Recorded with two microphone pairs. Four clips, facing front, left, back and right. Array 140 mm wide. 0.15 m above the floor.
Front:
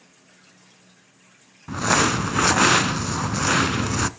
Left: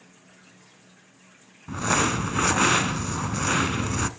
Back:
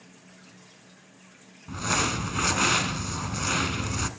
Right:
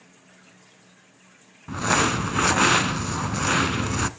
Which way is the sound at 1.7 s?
30° right.